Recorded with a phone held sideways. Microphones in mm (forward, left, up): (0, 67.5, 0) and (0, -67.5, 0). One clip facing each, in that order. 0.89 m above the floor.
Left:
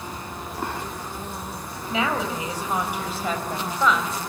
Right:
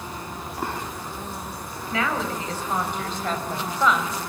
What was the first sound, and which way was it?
A woman speaking, 20° left (ahead or behind).